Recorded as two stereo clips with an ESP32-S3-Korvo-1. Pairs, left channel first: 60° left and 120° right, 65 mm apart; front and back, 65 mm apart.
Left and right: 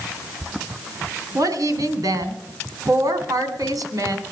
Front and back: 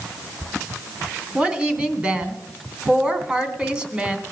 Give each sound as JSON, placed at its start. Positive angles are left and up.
{"t": 1.4, "sound": "a woman speaking", "azimuth_deg": -110, "distance_m": 2.5}